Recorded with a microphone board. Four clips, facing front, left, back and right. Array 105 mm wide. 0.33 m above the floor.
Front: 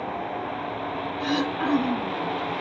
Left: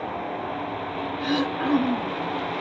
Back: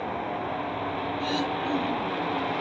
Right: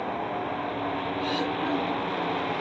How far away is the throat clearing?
About 1.5 m.